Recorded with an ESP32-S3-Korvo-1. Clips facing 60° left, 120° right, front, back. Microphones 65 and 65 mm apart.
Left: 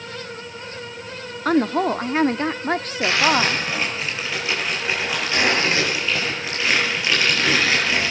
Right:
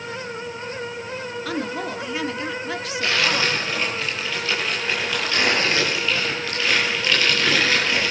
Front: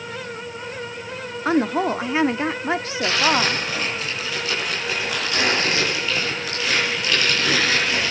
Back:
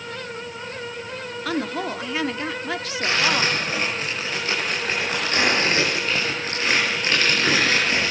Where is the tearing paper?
130° left, 9.5 m.